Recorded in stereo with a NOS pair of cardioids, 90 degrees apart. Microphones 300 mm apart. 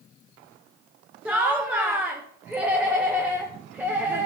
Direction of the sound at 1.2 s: 5° right.